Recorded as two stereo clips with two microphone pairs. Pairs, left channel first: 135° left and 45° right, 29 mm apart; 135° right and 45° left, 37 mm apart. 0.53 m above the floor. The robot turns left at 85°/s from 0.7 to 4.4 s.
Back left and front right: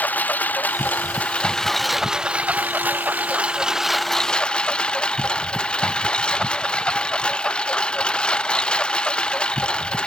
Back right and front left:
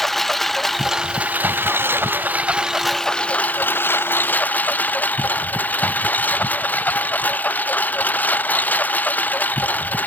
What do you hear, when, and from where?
0.0 s a lawn mower: 140° left; by 10.1 s 175° right